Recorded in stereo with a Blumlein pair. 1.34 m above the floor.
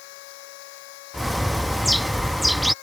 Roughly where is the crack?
No crack in this recording.